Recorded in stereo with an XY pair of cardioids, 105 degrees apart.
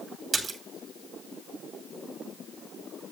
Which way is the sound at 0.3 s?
35° right.